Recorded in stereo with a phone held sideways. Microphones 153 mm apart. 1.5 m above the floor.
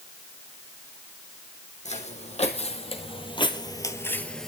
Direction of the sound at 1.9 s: 50° left (ahead or behind).